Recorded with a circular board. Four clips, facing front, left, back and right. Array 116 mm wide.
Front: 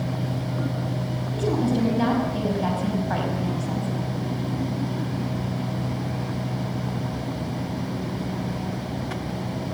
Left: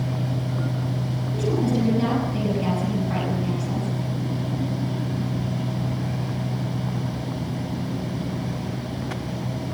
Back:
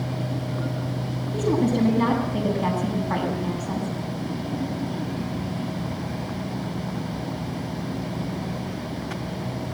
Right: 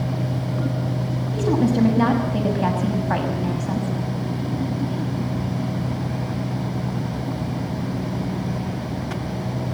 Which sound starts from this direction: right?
A woman speaking, at 1.3 s.